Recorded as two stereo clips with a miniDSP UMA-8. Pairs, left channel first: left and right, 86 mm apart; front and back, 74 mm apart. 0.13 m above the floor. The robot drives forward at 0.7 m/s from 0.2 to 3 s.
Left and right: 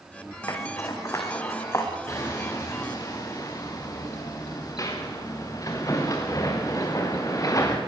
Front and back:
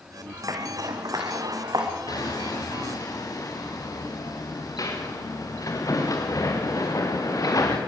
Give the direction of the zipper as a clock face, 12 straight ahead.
7 o'clock.